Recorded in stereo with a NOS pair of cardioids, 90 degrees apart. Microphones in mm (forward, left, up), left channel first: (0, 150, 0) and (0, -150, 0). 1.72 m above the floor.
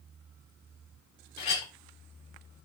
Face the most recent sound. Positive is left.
turn(degrees=65)